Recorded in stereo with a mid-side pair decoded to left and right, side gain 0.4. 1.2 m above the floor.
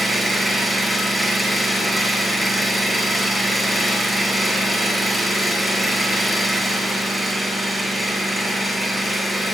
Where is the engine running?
Straight ahead, 8.5 m.